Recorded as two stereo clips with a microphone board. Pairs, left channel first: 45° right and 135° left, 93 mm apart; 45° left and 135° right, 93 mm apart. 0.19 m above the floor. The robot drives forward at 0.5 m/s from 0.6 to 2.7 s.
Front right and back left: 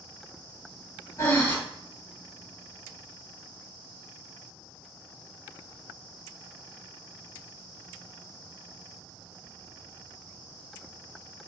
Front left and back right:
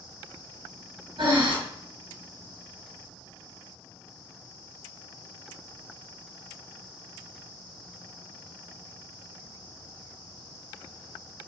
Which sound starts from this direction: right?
Breathing, at 1.2 s.